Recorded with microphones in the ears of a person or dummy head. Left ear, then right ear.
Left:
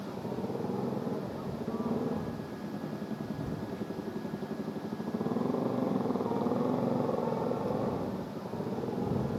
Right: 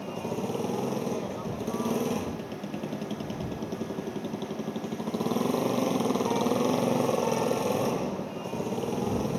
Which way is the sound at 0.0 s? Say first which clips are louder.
Right 5 dB; 85° right.